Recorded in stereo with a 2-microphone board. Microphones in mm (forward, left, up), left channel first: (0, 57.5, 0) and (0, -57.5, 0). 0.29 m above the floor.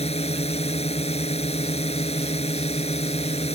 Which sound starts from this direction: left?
A drone, at 0.0 s.